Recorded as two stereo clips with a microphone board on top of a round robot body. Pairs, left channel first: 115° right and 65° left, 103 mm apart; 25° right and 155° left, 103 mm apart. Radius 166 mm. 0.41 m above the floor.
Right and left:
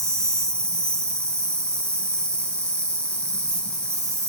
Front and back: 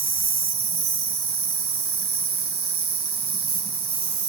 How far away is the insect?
About 2.5 m.